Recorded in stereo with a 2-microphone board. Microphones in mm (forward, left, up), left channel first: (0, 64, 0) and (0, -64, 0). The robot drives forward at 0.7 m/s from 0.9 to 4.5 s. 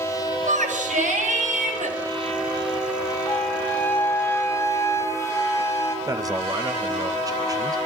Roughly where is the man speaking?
Right.